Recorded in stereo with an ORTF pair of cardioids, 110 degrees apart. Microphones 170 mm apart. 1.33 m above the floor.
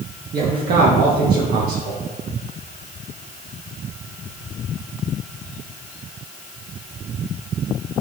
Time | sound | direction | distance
0.3 | a man speaking | 65° right | 1.7 m